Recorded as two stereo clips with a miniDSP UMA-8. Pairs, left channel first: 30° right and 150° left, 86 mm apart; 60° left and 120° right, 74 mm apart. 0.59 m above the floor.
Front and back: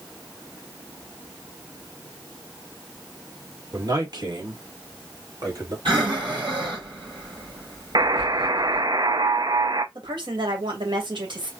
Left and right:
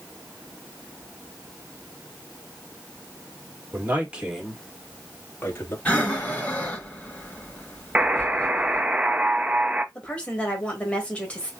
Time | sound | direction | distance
3.7 | a man speaking | 175° right | 2 m
5.8 | breathing | 130° left | 4.5 m
8.0 | a buzzer | 170° left | 0.6 m
9.9 | a woman speaking | 135° left | 2.5 m